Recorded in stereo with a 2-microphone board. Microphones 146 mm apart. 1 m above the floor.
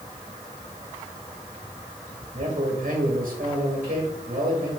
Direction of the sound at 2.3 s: 65° right (ahead or behind).